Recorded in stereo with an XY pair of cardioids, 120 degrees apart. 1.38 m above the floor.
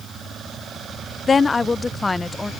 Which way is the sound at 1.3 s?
25° left.